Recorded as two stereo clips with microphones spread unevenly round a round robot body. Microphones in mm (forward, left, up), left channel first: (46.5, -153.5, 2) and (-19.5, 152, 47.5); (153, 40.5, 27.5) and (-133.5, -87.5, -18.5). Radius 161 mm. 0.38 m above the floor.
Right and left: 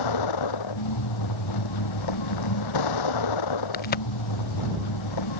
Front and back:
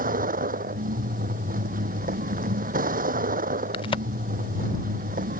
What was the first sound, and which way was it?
A vehicle, 90° right.